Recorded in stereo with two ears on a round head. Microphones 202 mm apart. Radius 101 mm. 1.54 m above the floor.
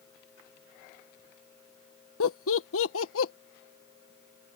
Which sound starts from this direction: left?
Laughter, at 2.2 s.